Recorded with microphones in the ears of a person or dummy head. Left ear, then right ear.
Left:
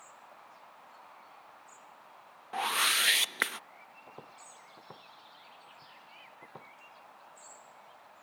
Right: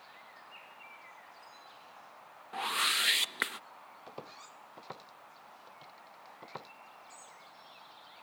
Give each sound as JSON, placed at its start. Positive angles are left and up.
{"t": 2.5, "sound": "a whoosh", "side_deg": 20}
{"t": 4.1, "sound": "footsteps", "side_deg": -75}